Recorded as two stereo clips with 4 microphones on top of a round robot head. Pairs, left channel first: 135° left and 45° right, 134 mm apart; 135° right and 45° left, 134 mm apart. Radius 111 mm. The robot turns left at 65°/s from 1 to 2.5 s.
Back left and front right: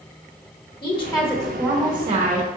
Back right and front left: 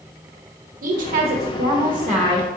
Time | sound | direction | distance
0.8 | a woman speaking | 75° left | 0.6 m